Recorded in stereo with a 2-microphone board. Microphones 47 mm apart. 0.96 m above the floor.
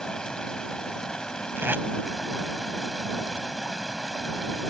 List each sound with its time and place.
0.0 s running water: 15° left (ahead or behind)
1.6 s tape being pulled: 50° right (ahead or behind)